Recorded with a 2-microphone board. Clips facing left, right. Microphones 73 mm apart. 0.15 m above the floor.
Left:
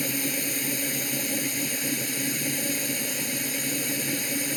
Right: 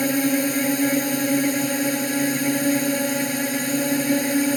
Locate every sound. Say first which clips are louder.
0.0 s a drone: right 10 dB; 60° right (ahead or behind)